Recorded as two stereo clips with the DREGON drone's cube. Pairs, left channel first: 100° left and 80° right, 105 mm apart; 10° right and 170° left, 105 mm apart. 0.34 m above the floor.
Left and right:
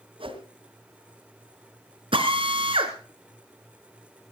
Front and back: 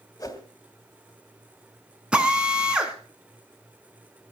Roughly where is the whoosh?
Ahead right.